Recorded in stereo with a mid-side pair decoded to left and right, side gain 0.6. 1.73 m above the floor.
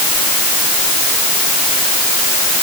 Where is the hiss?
I don't hear a hiss.